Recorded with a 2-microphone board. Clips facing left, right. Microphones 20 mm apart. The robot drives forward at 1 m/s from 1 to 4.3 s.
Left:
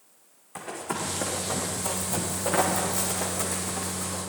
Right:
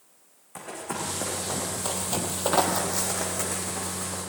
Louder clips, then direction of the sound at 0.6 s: Left 1 dB; 5° right (ahead or behind).